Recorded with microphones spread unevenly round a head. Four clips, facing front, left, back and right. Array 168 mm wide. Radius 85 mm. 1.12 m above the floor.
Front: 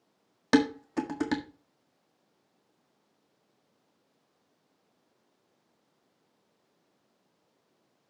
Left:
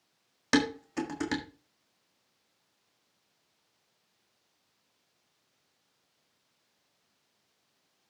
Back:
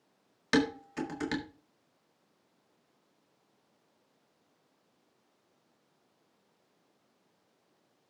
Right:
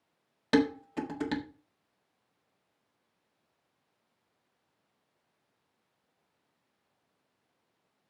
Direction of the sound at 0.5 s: Straight ahead.